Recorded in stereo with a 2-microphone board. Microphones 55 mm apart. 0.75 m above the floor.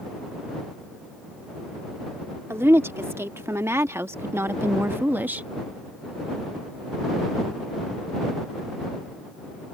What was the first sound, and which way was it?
A woman speaking, 50° right (ahead or behind).